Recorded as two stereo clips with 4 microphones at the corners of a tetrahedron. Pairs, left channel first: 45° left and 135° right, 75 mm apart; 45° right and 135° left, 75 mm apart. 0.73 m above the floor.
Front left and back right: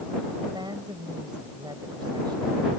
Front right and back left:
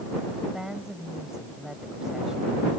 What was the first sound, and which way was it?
A woman speaking, 140° right.